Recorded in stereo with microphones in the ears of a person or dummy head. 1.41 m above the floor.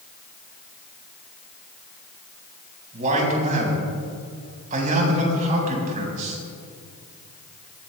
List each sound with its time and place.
2.9 s a man speaking: 40° right (ahead or behind), 5 m